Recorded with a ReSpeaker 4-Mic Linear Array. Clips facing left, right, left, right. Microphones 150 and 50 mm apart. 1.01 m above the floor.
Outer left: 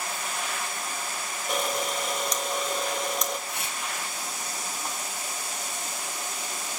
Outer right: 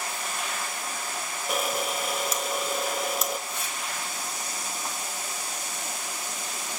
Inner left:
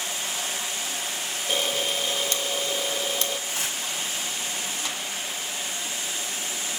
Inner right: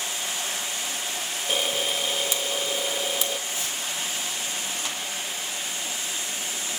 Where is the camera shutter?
5° right (ahead or behind), 1.6 m.